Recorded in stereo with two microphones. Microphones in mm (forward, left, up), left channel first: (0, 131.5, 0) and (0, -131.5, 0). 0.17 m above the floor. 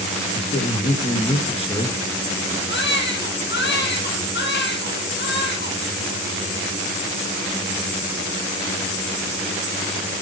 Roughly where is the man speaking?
Left.